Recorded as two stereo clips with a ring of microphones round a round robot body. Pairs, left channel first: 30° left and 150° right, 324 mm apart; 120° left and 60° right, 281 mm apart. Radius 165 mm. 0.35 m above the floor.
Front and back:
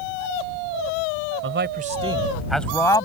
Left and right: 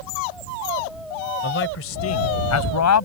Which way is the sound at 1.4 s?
170° left.